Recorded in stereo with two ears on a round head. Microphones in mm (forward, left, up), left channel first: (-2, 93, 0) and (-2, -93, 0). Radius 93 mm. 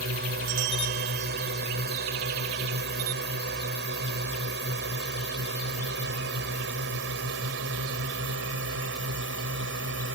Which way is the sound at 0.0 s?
45° right (ahead or behind).